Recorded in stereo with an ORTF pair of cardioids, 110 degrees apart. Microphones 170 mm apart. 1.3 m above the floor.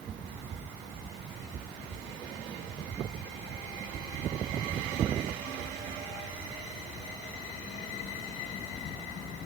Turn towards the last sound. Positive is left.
No sound to turn to.